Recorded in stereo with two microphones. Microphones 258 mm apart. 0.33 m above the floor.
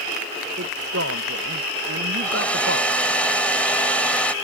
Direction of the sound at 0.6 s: 65° right (ahead or behind).